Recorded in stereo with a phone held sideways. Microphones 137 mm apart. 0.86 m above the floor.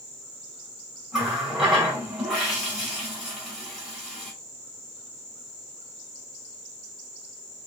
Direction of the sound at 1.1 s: 5° right (ahead or behind).